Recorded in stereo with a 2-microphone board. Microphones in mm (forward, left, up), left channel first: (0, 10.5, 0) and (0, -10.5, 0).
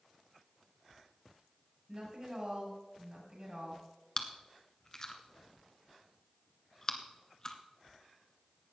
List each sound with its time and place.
1.9 s a woman speaking: 35° right (ahead or behind), 6 m
4.2 s chewing: 30° left (ahead or behind), 1.2 m